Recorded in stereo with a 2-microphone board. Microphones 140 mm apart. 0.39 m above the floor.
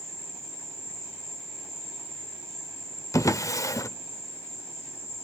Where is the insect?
50° left (ahead or behind), 7 m.